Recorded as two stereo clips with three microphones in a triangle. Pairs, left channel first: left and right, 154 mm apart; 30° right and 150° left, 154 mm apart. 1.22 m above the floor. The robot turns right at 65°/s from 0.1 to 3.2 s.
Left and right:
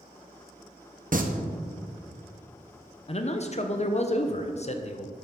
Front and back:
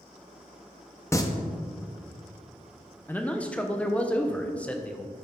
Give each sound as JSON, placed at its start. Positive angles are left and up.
{"t": 1.1, "sound": "singing", "azimuth_deg": -100, "distance_m": 0.8}
{"t": 3.1, "sound": "a man speaking", "azimuth_deg": 40, "distance_m": 0.6}